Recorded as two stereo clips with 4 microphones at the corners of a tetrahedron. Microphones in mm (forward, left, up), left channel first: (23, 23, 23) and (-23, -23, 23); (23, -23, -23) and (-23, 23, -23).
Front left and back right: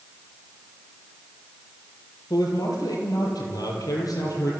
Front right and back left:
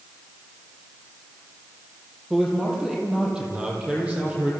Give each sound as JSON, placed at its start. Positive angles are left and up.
{"t": 2.3, "sound": "a man speaking", "azimuth_deg": 55, "distance_m": 5.5}